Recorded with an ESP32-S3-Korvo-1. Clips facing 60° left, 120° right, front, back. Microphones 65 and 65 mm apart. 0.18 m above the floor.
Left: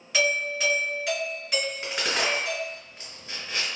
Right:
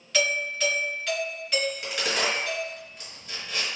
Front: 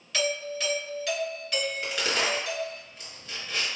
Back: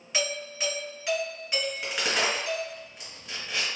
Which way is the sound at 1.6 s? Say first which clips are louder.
Right 1 dB, even; 110° left.